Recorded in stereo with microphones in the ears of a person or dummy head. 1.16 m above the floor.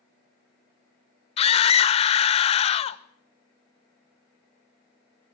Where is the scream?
35° left (ahead or behind), 1.0 m.